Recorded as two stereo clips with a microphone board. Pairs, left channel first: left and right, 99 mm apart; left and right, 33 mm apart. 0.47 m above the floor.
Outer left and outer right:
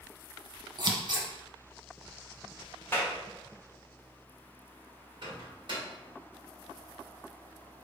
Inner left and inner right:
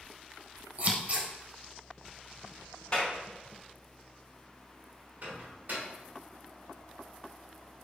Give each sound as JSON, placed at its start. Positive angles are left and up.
{"t": 0.8, "sound": "scissors", "side_deg": -45, "distance_m": 0.7}
{"t": 2.9, "sound": "a clap", "side_deg": 20, "distance_m": 1.2}
{"t": 5.2, "sound": "a microwave", "side_deg": -55, "distance_m": 1.6}